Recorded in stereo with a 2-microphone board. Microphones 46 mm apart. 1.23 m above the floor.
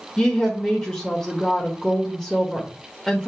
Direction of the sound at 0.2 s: 15° left (ahead or behind).